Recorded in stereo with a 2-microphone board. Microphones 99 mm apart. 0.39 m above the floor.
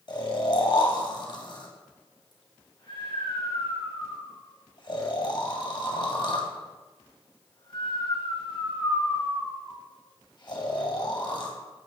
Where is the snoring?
50° left (ahead or behind), 1.8 m.